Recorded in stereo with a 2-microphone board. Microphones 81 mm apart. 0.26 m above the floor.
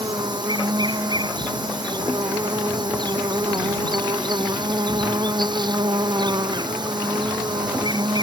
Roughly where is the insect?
Right.